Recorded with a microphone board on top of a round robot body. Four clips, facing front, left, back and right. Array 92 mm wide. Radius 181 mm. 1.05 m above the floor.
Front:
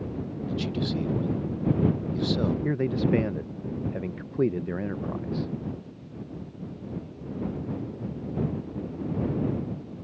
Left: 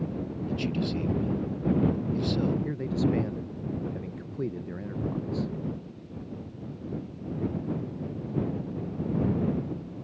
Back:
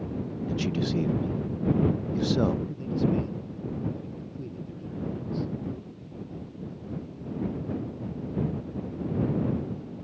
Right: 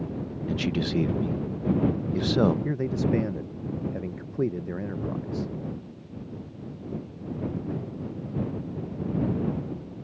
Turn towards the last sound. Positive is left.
turn(degrees=-25)